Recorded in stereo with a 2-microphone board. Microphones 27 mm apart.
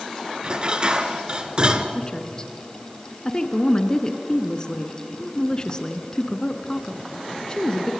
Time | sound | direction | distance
0.4 | dishes clattering | 35° right (ahead or behind) | 1.6 m
1.9 | a woman speaking | 25° left (ahead or behind) | 1.8 m